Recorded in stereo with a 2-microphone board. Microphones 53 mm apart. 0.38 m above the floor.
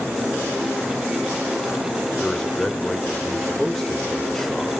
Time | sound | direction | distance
2.2 | a man speaking | 5° left (ahead or behind) | 1.3 m